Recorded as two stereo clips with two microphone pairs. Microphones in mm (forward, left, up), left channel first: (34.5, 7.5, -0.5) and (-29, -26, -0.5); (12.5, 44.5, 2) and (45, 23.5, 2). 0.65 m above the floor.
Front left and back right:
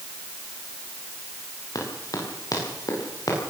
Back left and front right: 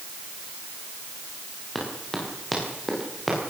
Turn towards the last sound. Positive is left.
turn(degrees=60)